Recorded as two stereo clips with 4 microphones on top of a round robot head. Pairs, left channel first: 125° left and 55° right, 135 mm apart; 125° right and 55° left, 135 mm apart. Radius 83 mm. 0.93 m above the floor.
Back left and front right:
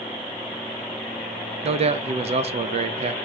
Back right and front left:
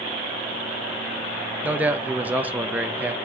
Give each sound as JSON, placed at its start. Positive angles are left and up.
{"t": 1.6, "sound": "a man speaking", "azimuth_deg": -20, "distance_m": 0.7}